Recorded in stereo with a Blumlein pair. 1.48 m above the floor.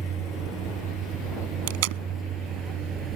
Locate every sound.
0.0 s a vehicle: 20° right; by 3.2 s 25° right
1.7 s tape being pulled: 50° right